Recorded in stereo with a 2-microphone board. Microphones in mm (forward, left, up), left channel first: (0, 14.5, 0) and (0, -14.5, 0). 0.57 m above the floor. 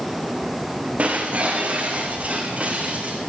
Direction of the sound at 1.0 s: 50° right (ahead or behind).